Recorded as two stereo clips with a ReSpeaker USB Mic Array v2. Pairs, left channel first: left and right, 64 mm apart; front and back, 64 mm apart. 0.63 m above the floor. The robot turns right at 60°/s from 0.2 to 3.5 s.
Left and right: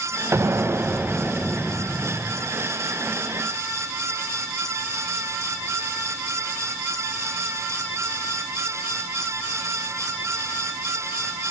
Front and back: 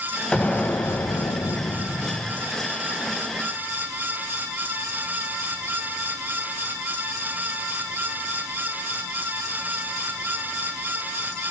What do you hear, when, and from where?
0.3 s an explosion: 70° right, 0.6 m; by 2.5 s 60° left, 0.6 m